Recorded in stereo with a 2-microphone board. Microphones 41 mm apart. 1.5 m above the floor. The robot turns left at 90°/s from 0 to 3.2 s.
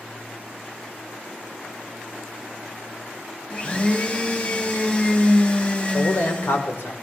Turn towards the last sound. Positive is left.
turn(degrees=85)